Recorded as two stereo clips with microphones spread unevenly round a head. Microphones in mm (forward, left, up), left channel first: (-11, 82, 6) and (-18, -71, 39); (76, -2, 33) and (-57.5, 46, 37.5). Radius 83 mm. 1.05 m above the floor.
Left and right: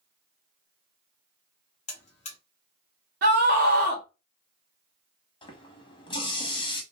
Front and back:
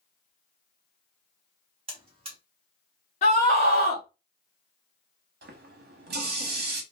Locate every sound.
1.9 s a buzzer: 135° left, 1.0 m
3.2 s a scream: 60° right, 0.9 m
5.4 s a running tap: 150° left, 1.0 m